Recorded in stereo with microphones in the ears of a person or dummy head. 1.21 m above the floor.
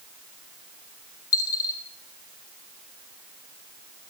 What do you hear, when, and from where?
1.3 s a dropped coin: 20° left (ahead or behind), 3 m